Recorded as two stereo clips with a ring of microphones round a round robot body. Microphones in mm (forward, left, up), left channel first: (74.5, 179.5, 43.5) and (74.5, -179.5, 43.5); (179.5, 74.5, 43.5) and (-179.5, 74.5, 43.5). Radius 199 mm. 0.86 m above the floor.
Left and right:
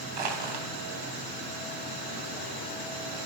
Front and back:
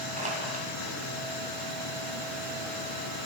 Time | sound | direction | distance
0.2 | crushing | 105° right | 4 m